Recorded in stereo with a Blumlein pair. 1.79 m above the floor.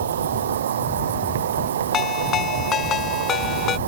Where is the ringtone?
25° left.